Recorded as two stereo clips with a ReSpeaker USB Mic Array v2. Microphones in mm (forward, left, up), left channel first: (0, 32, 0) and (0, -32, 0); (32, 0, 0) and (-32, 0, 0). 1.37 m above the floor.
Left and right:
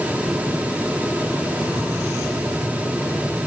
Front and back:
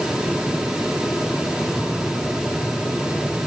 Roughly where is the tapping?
Right.